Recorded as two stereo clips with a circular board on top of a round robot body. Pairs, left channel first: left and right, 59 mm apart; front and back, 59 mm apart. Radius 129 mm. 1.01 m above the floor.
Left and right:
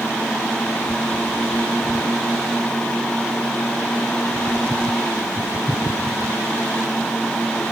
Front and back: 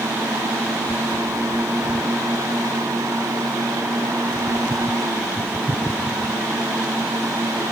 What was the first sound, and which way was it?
Only background noise.